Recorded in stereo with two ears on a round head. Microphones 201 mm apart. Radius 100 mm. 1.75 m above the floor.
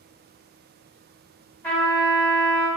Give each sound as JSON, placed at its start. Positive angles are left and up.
{"t": 1.6, "sound": "a trumpet", "side_deg": 5, "distance_m": 1.8}